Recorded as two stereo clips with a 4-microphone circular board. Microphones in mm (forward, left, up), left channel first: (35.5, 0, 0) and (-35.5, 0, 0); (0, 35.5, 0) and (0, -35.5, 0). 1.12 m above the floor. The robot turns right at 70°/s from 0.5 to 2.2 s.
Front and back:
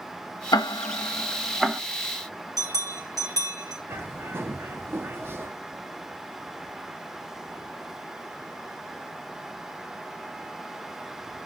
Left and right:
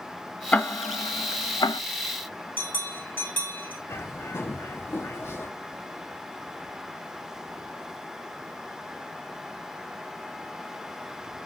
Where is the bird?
135° left, 0.8 m.